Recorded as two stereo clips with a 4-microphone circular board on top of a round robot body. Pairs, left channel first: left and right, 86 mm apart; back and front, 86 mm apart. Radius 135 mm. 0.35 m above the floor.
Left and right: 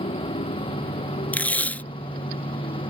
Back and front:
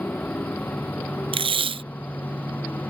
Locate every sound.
0.0 s a motorcycle: 105° left; by 2.9 s 110° left
1.3 s tape being pulled: 15° left